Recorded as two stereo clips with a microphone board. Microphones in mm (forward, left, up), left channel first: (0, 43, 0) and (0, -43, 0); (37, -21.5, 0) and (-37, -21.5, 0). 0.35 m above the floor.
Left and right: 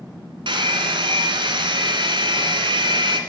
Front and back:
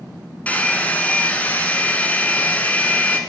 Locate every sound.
0.5 s a hair dryer: 70° right, 1.3 m